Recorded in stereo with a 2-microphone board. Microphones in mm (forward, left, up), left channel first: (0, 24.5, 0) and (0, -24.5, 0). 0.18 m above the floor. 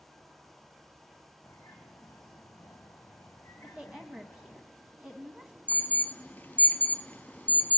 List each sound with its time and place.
1.4 s a bird: 60° left (ahead or behind), 2.5 m
3.6 s a woman speaking: 20° right (ahead or behind), 1.5 m
5.7 s an alarm: 35° left (ahead or behind), 0.8 m